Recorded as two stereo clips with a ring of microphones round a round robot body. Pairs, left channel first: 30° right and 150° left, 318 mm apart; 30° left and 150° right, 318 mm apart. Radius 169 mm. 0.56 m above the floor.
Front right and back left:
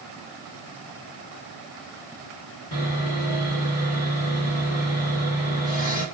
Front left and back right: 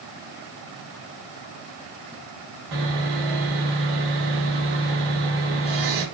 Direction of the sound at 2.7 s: 95° right.